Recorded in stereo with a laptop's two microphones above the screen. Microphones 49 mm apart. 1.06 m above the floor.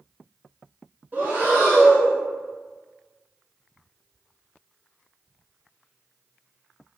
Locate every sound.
1.1 s breathing: 45° right (ahead or behind), 1.2 m